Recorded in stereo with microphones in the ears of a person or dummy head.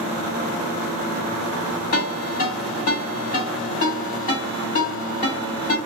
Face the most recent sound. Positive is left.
turn(degrees=35)  # may be behind; listen again after turning